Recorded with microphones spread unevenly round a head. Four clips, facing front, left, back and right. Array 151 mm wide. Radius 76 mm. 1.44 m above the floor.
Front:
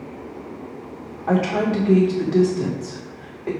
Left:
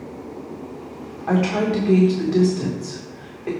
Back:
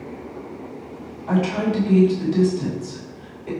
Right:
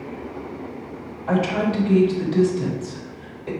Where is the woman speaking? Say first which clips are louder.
Left 1 dB, front 1 dB; 40° left, 2 m.